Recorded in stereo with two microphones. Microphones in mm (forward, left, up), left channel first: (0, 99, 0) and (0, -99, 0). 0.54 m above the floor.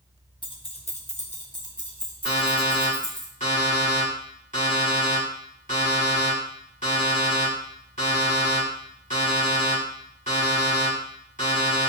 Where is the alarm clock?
35° left (ahead or behind), 2 m.